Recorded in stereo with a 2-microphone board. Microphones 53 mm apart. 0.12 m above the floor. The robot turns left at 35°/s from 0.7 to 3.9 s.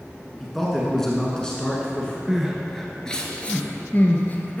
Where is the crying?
10° right (ahead or behind), 1.1 m; by 4.6 s 35° left (ahead or behind), 1.1 m.